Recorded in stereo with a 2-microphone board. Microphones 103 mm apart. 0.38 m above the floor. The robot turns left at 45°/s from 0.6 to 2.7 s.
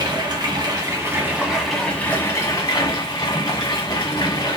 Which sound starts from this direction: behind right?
Running water, at 0.0 s.